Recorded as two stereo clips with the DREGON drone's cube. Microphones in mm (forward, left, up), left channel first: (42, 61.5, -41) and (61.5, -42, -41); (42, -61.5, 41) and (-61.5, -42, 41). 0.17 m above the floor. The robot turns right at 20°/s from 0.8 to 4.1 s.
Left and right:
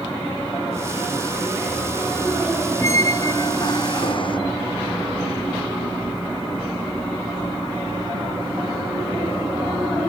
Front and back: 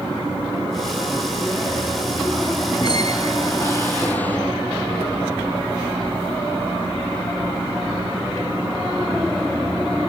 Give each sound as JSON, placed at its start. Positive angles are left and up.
{"t": 2.8, "sound": "a squeak", "azimuth_deg": 35}